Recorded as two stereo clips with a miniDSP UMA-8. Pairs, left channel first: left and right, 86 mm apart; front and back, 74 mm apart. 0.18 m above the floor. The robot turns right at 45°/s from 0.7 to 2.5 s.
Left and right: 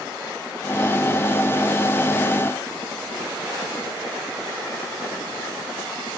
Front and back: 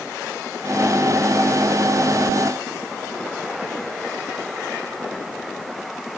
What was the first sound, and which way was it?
Only background noise.